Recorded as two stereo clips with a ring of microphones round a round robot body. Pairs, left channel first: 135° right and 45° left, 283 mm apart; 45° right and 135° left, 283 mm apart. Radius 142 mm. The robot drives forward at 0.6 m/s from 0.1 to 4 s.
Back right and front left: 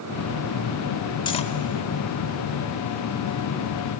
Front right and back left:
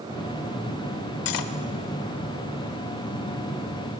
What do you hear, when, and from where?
1.2 s cutlery clinking: 60° right, 1.0 m; by 1.5 s 70° right, 0.9 m